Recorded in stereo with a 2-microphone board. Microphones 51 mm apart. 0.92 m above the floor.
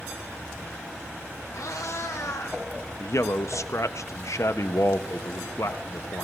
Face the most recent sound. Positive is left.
turn(degrees=70)  # may be behind; listen again after turning